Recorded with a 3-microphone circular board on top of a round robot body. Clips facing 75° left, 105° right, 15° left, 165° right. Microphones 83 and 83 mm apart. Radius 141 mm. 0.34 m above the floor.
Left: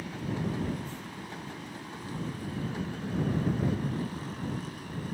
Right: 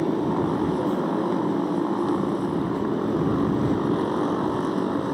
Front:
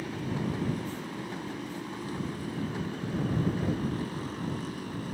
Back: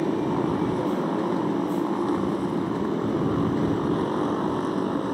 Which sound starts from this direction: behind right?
A motorcycle, at 0.0 s.